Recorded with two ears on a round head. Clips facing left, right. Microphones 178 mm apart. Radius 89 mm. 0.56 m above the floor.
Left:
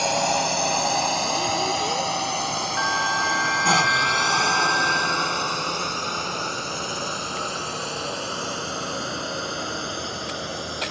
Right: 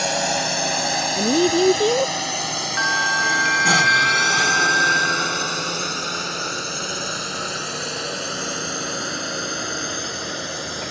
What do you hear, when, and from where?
0.0 s a drone: 15° right (ahead or behind); by 10.9 s 20° right (ahead or behind)
1.2 s a woman speaking: 65° right (ahead or behind)
2.8 s a bell: 30° right (ahead or behind)